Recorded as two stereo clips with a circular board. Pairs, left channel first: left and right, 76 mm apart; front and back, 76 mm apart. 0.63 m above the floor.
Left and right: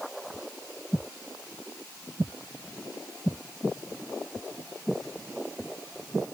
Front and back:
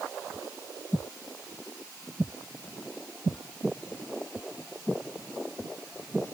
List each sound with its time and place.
Only background noise.